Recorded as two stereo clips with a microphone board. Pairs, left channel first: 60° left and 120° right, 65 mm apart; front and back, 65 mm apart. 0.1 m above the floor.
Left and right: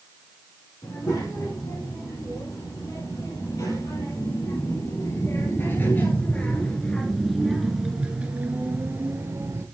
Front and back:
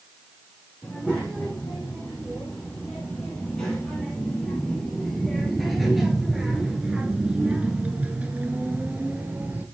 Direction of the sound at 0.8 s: 75° left.